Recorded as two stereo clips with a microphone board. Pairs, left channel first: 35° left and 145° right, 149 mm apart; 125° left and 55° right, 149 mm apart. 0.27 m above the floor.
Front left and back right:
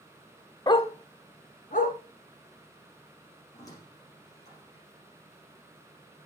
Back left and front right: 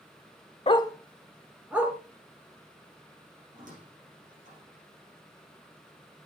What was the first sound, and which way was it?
A dog barking, 90° left.